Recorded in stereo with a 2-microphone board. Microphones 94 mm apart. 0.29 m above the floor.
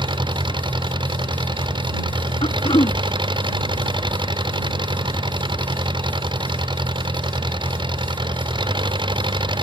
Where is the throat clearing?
85° left.